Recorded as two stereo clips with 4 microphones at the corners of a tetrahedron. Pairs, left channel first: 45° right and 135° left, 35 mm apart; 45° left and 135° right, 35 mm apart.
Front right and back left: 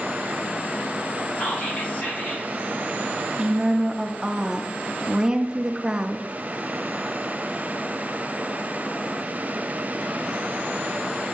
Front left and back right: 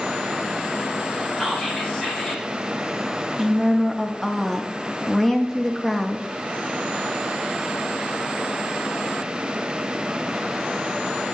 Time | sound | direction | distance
1.4 | whispering | 30° right | 3 m
3.4 | a woman speaking | 110° left | 0.5 m